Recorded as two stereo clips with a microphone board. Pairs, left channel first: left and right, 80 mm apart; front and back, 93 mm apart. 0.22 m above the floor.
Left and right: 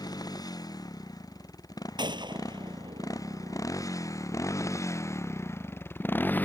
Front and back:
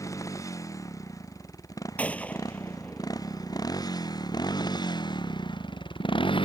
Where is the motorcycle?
55° left; by 6.5 s 20° left.